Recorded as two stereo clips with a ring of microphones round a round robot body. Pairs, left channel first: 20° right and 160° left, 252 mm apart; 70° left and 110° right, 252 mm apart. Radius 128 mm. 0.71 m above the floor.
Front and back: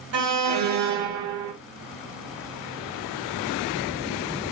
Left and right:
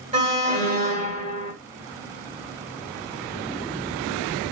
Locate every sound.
0.1 s an alarm: 175° right, 2 m